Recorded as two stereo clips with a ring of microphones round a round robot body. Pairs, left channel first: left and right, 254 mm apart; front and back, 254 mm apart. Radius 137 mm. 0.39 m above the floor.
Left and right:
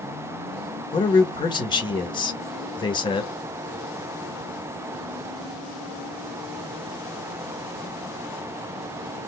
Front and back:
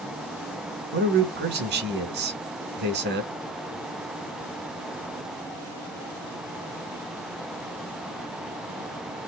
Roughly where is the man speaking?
Behind left.